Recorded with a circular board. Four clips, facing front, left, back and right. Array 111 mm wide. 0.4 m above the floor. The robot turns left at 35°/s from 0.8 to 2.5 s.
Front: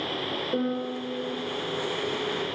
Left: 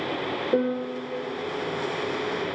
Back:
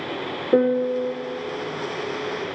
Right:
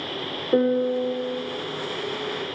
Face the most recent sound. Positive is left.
turn(degrees=130)